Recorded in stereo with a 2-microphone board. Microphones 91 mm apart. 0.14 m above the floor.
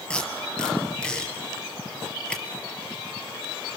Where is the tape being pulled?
10° left (ahead or behind), 3.5 m.